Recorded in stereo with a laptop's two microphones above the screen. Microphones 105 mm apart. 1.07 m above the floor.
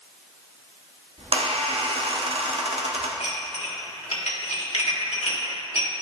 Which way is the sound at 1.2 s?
70° right (ahead or behind).